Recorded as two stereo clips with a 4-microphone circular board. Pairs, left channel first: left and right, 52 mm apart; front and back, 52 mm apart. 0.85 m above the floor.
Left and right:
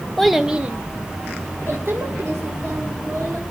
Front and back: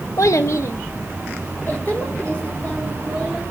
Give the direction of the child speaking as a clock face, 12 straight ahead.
12 o'clock.